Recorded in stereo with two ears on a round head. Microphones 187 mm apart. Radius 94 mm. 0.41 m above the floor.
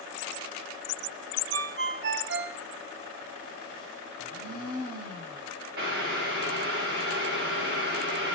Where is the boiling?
50° right (ahead or behind), 7.5 m.